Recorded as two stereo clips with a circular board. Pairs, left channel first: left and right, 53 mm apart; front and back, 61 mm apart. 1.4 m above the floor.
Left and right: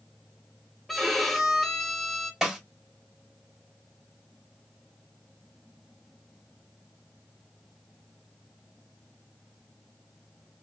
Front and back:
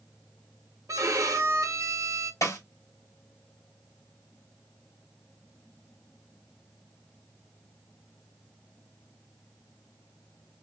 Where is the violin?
175° left, 0.7 m.